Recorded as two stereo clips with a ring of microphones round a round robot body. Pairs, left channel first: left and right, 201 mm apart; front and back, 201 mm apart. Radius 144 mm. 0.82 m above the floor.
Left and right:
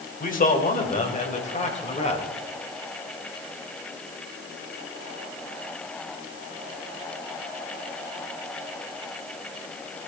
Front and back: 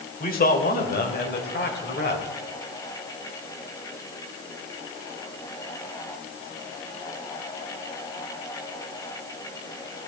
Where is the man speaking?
45° left, 3.5 m; by 2.3 s 30° left, 4 m.